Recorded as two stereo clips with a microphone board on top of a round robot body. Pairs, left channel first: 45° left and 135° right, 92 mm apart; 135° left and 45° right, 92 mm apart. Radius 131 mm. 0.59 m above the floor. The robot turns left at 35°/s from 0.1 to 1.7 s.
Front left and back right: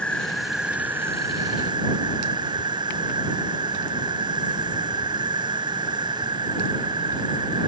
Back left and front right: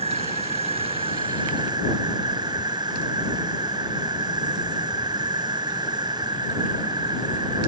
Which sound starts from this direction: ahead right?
An insect, at 0.0 s.